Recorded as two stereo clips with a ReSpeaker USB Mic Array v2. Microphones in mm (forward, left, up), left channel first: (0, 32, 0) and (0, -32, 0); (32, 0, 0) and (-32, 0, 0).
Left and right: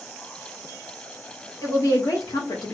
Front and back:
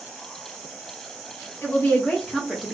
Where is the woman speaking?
60° left, 1.8 m; by 2.7 s 100° left, 1.0 m.